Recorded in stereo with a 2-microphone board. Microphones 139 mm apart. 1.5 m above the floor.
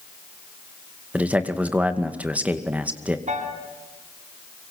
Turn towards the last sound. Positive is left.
turn(degrees=-65)  # may be behind; listen again after turning